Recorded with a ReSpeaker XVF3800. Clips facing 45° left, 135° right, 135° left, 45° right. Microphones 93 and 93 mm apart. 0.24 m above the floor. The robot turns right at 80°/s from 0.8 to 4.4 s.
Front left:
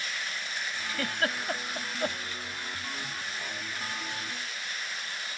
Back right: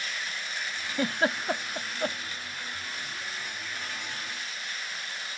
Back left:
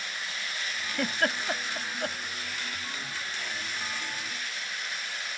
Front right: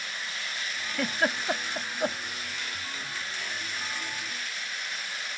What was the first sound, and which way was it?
A giggle, 145° right.